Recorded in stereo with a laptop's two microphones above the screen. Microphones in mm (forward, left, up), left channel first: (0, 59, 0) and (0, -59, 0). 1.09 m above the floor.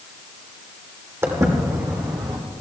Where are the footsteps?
25° right (ahead or behind), 3 m; by 2.4 s 45° right (ahead or behind), 1.7 m.